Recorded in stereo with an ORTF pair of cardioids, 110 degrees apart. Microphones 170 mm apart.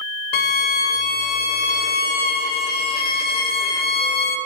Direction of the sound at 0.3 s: 65° left.